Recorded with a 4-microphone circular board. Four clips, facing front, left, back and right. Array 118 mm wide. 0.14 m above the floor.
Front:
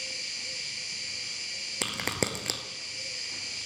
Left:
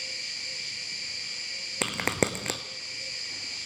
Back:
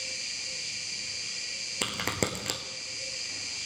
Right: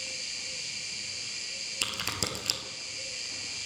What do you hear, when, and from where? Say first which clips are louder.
0.0 s an insect: left 1 dB, front 1 dB; 75° left, 2.0 m
1.8 s a crack: left 9 dB, even; 90° left, 0.8 m